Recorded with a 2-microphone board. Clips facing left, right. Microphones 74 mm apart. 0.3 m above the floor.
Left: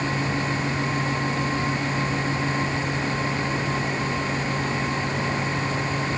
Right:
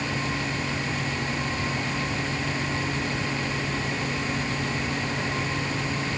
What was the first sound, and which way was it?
Only background noise.